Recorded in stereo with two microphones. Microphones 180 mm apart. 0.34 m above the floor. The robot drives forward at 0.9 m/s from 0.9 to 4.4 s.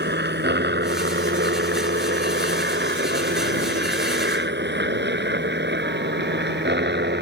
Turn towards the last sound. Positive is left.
turn(degrees=-70)  # may be behind; listen again after turning